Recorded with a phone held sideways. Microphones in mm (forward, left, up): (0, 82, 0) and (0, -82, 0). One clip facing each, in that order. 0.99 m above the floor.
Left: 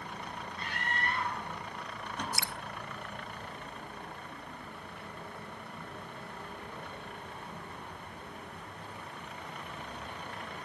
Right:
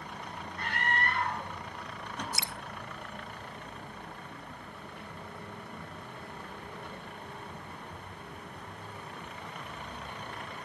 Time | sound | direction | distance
0.6 | a scream | 60° right (ahead or behind) | 8 m
2.3 | dripping | 20° right (ahead or behind) | 0.9 m